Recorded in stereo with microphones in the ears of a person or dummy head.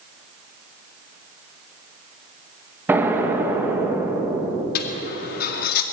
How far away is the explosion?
About 2.5 m.